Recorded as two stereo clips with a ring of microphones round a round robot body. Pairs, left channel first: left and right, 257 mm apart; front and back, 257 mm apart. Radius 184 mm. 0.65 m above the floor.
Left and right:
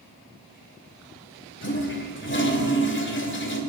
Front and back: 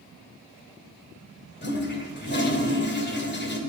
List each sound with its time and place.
1.6 s a toilet flushing: 45° left, 2.5 m